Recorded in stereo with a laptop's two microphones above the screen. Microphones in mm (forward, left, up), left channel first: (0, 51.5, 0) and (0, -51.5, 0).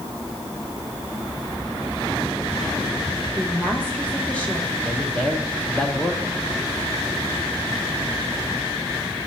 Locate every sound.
3.4 s a woman speaking: 15° left (ahead or behind), 0.7 m
4.8 s a man speaking: 10° left (ahead or behind), 0.7 m